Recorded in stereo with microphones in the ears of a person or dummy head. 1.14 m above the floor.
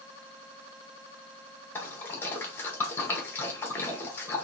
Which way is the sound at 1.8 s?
10° left (ahead or behind).